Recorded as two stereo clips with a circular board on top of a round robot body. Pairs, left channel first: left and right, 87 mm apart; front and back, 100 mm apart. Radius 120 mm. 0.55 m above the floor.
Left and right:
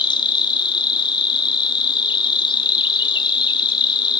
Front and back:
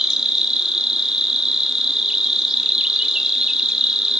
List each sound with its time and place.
0.0 s an insect: 95° left, 0.8 m